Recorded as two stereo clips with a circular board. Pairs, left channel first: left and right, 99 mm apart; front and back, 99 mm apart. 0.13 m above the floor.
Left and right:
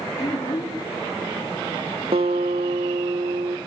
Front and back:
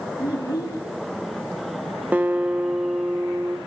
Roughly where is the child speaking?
Ahead left.